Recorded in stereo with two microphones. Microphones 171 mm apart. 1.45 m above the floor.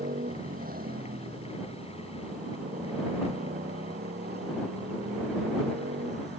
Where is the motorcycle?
55° right (ahead or behind); by 6.4 s 80° right.